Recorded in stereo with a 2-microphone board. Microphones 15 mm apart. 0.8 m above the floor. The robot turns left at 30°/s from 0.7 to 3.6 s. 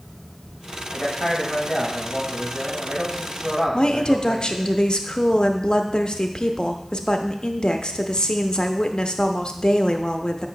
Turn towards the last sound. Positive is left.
turn(degrees=60)  # may be behind; listen again after turning